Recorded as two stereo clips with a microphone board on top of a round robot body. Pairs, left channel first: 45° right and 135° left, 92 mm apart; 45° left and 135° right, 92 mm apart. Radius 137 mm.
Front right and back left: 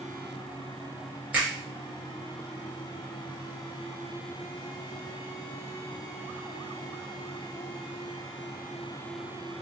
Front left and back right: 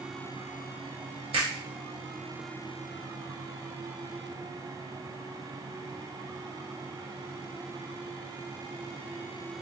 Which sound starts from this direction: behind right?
A finger snap, at 1.3 s.